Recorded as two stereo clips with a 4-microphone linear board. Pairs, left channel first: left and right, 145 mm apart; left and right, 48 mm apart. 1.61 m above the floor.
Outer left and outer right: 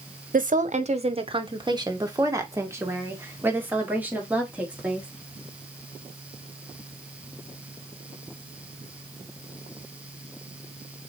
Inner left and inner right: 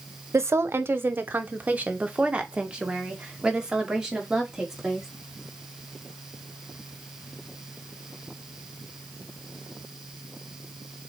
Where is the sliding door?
I don't hear a sliding door.